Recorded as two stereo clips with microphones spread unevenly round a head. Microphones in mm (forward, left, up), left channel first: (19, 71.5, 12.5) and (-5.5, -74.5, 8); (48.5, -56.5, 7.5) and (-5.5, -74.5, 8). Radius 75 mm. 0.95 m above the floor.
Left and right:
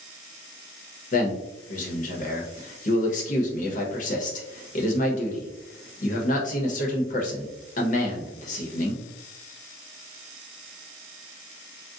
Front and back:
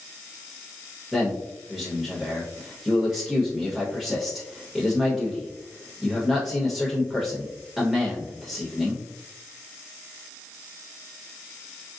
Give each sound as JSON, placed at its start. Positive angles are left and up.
{"t": 1.1, "sound": "a man speaking", "azimuth_deg": 110, "distance_m": 0.9}